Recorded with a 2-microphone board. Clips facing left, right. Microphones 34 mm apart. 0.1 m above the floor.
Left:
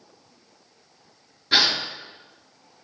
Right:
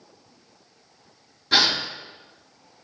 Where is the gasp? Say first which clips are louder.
Even; 10° left (ahead or behind), 0.5 m.